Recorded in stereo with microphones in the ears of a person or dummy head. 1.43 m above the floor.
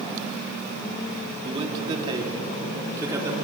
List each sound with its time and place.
1.4 s a man speaking: 35° right (ahead or behind), 3.5 m; by 3.4 s 20° right (ahead or behind), 4.5 m